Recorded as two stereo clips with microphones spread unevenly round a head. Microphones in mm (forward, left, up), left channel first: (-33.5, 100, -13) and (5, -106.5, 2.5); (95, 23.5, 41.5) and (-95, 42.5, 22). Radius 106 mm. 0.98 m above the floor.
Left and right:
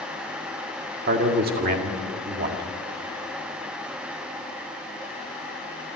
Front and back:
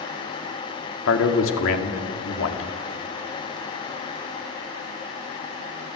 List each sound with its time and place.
1.1 s a man speaking: 30° right, 2.5 m